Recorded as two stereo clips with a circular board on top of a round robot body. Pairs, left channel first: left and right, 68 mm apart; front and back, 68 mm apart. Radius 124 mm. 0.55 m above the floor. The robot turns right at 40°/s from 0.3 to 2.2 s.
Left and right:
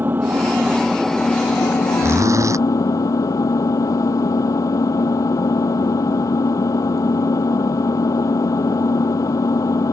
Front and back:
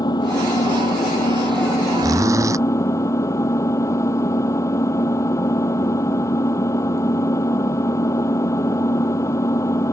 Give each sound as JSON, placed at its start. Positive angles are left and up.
{"t": 0.0, "sound": "an engine running", "azimuth_deg": -25}
{"t": 2.0, "sound": "a zipper", "azimuth_deg": -145}